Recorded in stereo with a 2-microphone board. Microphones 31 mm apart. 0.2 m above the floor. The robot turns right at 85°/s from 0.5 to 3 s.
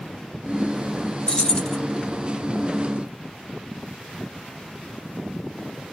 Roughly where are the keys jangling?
Left.